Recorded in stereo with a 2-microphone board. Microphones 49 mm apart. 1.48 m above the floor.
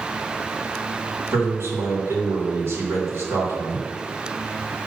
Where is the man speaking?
65° right (ahead or behind), 2.5 m.